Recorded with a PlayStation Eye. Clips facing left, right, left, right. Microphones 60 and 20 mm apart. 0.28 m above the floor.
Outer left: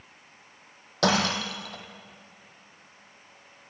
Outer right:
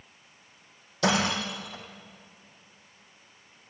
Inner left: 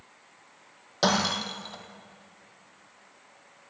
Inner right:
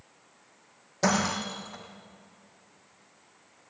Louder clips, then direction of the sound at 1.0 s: Outer left 1 dB, inner left 2 dB; 70° left (ahead or behind).